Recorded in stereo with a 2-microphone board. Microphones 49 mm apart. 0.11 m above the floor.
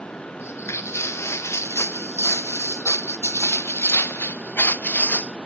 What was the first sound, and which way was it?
Footsteps, 70° left (ahead or behind).